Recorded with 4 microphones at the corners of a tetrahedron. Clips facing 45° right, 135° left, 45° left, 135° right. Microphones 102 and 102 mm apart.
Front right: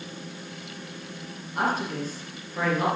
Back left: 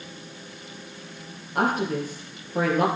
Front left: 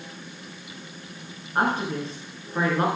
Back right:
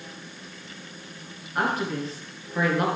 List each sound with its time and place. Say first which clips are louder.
1.6 s a woman speaking: back left 3 dB, front left 2 dB; 105° left, 3 m